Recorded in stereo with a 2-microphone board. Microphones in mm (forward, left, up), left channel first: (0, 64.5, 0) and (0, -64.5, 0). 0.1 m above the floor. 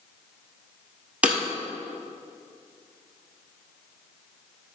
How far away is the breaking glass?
About 1.4 m.